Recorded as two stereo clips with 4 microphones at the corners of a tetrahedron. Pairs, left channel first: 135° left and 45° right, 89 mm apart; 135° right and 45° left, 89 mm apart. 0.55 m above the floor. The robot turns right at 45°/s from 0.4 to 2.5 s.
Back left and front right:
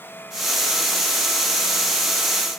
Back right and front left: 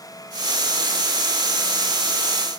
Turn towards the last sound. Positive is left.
No sound to turn to.